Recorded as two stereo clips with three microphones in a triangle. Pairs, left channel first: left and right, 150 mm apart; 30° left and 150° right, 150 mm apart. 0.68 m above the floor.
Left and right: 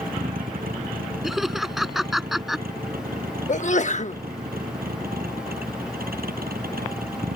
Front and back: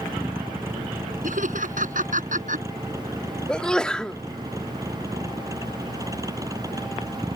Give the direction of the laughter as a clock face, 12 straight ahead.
6 o'clock.